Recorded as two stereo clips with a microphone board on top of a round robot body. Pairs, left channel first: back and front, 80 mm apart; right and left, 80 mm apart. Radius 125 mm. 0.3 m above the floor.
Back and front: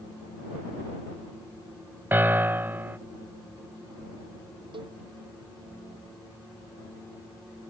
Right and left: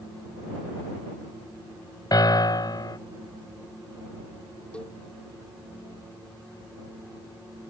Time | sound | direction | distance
2.1 | a piano | 60° right | ?
4.7 | a cowbell | 15° right | ?